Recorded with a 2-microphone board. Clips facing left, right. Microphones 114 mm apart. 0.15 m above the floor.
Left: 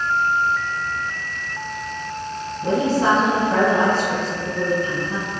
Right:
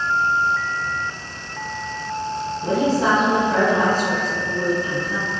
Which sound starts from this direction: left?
A woman speaking, at 2.6 s.